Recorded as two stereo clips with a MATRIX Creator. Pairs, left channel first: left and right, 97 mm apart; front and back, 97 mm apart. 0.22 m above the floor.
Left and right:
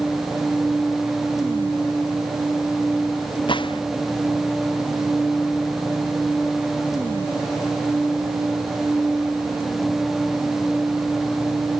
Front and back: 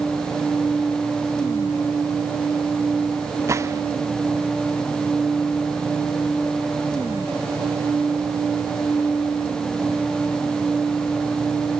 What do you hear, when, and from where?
3.5 s a gunshot: 120° left